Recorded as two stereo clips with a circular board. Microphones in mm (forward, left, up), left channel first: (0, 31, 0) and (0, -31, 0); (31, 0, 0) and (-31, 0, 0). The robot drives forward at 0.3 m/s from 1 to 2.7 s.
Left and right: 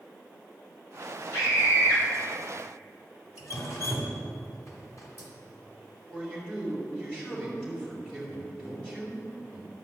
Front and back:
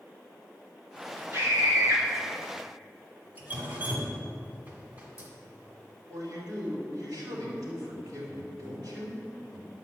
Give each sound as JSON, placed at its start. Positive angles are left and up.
{"t": 1.3, "sound": "a scream", "azimuth_deg": 125, "distance_m": 4.0}
{"t": 3.4, "sound": "dripping", "azimuth_deg": 120, "distance_m": 2.0}
{"t": 6.1, "sound": "a man speaking", "azimuth_deg": 165, "distance_m": 3.5}